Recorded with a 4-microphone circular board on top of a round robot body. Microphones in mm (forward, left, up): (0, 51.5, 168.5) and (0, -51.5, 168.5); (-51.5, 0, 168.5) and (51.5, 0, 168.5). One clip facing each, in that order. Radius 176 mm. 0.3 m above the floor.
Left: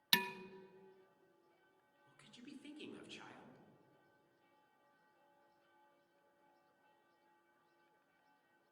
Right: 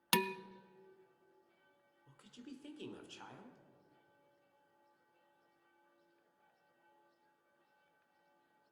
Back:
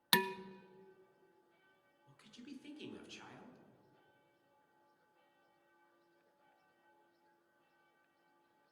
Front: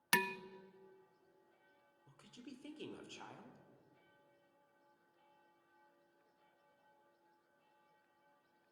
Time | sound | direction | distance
0.1 | dishes clattering | 105° right | 0.6 m
2.1 | a woman speaking | 40° right | 2 m